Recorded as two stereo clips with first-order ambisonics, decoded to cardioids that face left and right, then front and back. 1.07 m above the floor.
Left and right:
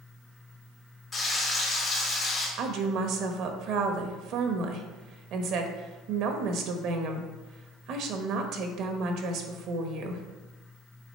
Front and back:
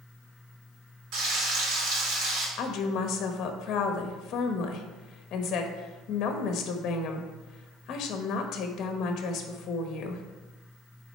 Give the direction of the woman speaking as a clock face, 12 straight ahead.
2 o'clock.